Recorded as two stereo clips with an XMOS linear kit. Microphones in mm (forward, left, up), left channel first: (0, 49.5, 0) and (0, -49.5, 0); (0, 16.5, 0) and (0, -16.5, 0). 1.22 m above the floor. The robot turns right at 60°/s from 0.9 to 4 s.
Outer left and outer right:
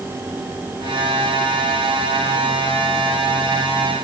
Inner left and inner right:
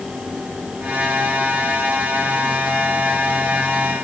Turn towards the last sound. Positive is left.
No sound to turn to.